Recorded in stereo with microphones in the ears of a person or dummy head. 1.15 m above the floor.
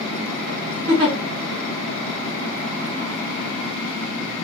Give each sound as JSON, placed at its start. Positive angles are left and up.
{"t": 0.9, "sound": "a giggle", "side_deg": -30, "distance_m": 1.7}